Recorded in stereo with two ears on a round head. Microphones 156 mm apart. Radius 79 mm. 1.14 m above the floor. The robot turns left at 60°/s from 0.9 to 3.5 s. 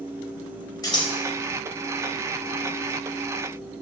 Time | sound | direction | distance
0.8 | scissors | 25° left (ahead or behind) | 4 m